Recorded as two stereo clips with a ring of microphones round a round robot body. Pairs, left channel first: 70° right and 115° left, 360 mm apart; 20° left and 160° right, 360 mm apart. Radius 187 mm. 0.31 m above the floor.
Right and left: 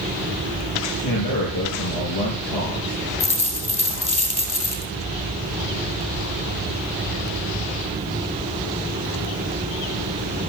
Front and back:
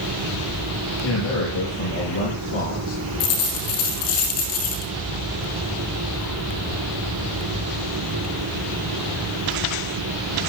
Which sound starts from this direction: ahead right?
A man speaking, at 1.0 s.